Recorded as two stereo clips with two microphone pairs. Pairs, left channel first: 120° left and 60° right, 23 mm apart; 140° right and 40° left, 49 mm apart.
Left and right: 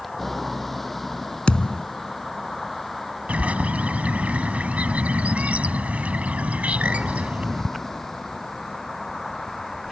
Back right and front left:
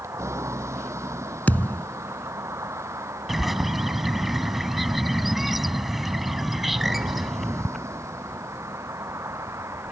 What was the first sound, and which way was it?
A vehicle, 40° left.